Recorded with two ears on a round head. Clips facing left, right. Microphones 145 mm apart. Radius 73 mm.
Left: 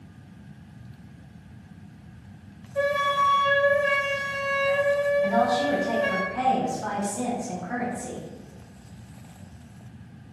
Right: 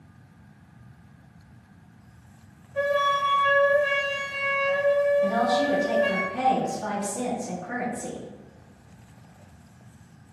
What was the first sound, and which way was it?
A flute, 10° left (ahead or behind).